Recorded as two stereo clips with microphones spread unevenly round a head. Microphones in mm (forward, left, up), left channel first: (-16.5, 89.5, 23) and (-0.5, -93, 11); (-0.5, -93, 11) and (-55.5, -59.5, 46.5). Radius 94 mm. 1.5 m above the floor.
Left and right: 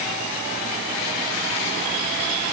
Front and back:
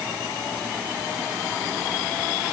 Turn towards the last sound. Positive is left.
No sound to turn to.